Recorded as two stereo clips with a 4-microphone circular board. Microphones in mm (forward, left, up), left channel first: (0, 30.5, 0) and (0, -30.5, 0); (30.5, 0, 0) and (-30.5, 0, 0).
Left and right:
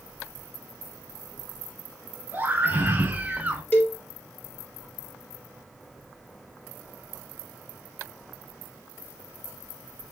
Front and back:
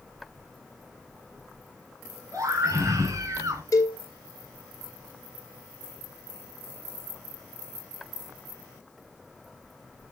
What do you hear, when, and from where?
2.3 s a scream: 150° right, 3.5 m; by 3.6 s 155° right, 2 m
3.7 s a cowbell: 30° left, 1.9 m